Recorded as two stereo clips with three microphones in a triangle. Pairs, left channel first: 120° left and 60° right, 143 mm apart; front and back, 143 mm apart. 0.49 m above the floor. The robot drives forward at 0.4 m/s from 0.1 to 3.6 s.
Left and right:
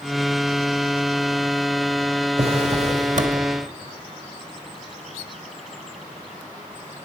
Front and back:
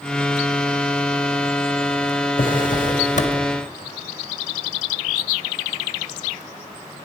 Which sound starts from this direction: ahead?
A drawer, at 2.4 s.